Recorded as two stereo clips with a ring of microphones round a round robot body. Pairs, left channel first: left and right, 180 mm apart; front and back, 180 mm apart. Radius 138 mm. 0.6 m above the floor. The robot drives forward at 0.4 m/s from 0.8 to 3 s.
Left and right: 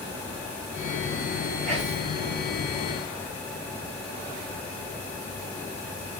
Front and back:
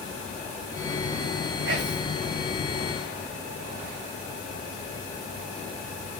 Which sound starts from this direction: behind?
Whispering, at 1.6 s.